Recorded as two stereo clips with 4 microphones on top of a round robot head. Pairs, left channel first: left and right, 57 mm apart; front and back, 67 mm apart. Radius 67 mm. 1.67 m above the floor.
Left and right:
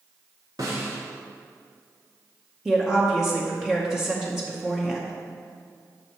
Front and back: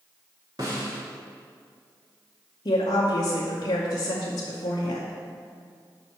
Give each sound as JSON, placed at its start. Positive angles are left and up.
{"t": 0.6, "sound": "a snare drum", "azimuth_deg": -130, "distance_m": 0.9}
{"t": 2.6, "sound": "a woman speaking", "azimuth_deg": -5, "distance_m": 0.7}